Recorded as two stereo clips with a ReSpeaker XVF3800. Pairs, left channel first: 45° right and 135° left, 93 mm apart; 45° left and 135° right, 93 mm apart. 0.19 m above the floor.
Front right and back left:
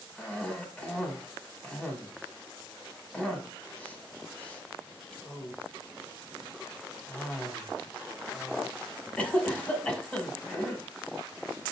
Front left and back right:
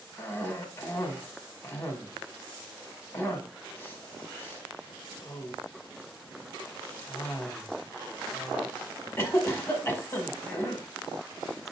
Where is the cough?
15° left, 1.0 m.